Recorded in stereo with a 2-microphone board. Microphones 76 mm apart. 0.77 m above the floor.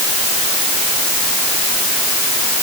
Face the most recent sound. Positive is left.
No sound to turn to.